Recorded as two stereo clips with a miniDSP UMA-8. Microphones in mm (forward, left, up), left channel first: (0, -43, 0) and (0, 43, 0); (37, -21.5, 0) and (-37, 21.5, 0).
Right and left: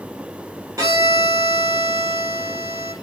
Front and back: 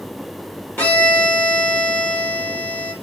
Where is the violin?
40° left, 3.5 m.